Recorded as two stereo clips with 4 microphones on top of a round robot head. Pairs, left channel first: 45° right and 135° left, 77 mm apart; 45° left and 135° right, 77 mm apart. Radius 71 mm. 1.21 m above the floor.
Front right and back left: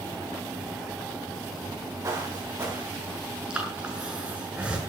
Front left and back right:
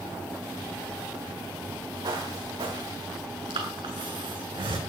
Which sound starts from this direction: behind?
Footsteps, at 2.0 s.